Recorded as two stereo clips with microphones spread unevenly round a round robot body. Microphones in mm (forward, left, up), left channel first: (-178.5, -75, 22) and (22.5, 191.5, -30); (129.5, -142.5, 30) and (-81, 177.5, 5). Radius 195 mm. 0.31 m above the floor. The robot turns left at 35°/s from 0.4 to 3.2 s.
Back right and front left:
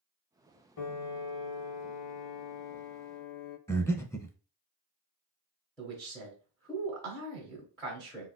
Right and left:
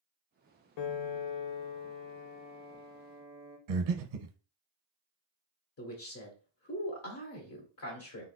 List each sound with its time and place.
0.8 s a piano: 70° right, 0.5 m; by 3.6 s 155° right, 0.5 m
3.7 s breathing: 150° left, 0.5 m
5.8 s a man speaking: 30° right, 1.0 m